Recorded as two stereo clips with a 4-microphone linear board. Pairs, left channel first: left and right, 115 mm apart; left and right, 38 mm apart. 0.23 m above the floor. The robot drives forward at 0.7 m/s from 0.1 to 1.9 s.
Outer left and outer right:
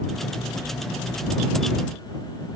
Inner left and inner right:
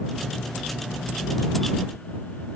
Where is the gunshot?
No gunshot in this recording.